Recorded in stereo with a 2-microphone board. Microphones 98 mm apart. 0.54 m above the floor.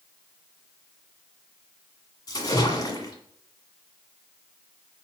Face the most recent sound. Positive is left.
turn(degrees=40)  # may be behind; listen again after turning